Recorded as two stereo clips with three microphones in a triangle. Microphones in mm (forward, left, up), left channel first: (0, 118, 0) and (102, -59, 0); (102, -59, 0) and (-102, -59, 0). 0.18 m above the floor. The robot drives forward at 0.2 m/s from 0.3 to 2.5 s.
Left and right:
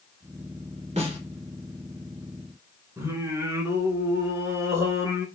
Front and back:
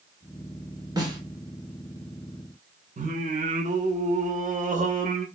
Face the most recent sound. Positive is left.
turn(degrees=-135)